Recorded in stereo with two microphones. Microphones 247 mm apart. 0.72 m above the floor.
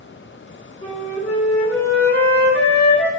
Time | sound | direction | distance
0.8 | a flute | 40° left (ahead or behind) | 1.3 m